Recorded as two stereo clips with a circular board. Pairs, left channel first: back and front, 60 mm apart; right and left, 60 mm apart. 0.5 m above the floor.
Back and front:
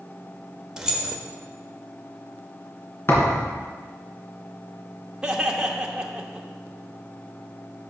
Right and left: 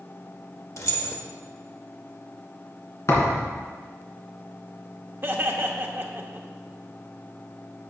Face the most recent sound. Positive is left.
turn(degrees=70)